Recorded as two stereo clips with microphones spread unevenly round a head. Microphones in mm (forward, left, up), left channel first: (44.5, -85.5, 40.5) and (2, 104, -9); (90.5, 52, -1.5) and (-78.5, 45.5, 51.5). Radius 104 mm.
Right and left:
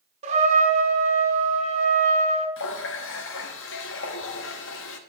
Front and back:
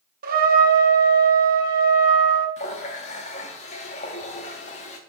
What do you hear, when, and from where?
0.2 s a trumpet: 165° left, 1.1 m
2.6 s a running tap: 60° right, 1.0 m